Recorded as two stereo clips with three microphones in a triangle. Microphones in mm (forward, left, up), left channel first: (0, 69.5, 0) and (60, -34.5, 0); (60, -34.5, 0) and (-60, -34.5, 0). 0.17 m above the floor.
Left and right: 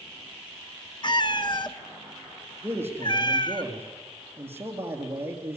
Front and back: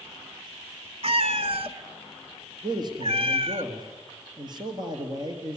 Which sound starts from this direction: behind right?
A man speaking, at 2.6 s.